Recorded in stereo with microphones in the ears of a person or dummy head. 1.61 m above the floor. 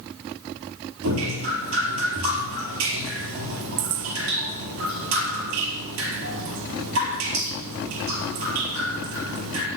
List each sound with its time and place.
1.0 s dripping: 75° right (ahead or behind), 4.5 m